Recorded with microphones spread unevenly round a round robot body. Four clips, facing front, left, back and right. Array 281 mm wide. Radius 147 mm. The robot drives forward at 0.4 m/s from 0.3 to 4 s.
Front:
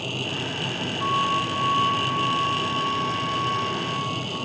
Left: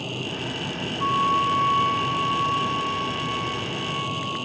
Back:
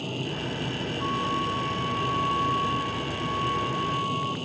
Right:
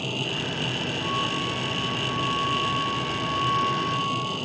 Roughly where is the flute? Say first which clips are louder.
Left 10 dB, front 5 dB; ahead left.